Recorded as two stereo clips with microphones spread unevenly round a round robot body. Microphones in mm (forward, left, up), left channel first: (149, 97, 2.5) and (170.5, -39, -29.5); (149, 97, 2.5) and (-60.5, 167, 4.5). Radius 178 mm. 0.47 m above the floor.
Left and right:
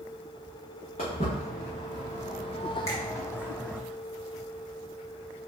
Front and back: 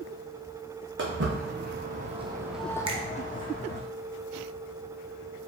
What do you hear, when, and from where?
1.0 s footsteps: 135° left, 2 m; by 3.8 s 20° left, 1.7 m
2.9 s a finger snap: 170° left, 0.5 m